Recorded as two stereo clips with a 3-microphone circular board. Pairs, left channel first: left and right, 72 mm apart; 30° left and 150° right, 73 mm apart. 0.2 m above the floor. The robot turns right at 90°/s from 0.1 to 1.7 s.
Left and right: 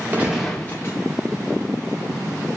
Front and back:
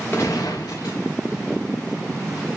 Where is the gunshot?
25° right, 4.5 m; by 1.0 s 50° left, 4.5 m.